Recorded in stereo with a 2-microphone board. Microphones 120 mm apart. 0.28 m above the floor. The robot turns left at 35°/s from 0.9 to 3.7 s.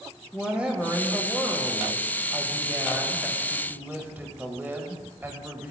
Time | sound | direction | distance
0.3 | a woman speaking | 10° right (ahead or behind) | 1.1 m